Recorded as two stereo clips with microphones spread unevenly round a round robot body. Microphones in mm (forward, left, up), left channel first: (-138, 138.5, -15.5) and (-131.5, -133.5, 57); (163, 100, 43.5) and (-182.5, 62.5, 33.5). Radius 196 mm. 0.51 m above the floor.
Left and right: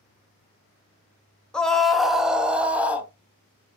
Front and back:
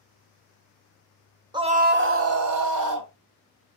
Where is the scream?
130° left, 0.7 m; by 3.1 s straight behind, 1.2 m.